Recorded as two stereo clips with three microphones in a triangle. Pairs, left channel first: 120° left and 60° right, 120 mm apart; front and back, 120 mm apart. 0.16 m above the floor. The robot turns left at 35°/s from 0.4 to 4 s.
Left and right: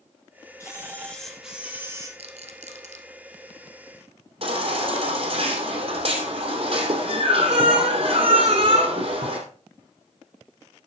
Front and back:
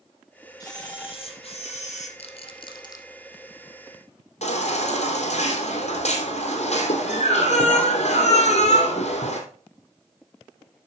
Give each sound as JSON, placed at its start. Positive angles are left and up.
{"t": 0.6, "sound": "a camera shutter", "azimuth_deg": 55, "distance_m": 3.0}
{"t": 2.2, "sound": "a rattle", "azimuth_deg": -30, "distance_m": 1.5}
{"t": 4.4, "sound": "a baby crying", "azimuth_deg": -25, "distance_m": 3.0}